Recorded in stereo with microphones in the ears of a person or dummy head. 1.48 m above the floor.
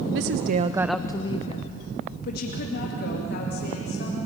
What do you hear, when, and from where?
0.1 s a woman speaking: 75° right (ahead or behind), 0.8 m; by 4.2 s 55° left (ahead or behind), 4 m